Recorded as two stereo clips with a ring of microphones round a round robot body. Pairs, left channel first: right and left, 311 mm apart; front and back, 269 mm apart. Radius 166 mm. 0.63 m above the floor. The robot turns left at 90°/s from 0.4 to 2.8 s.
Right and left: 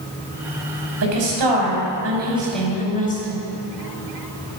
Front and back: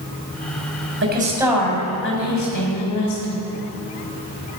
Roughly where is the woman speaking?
Behind left.